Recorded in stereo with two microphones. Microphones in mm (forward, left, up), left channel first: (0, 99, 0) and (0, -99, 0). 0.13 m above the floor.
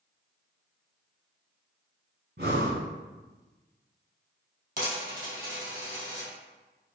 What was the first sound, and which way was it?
Breathing, 55° right (ahead or behind).